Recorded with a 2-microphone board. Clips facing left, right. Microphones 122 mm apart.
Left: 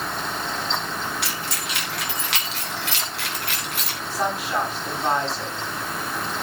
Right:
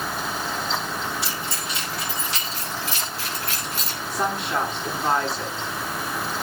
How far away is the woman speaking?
About 8.5 m.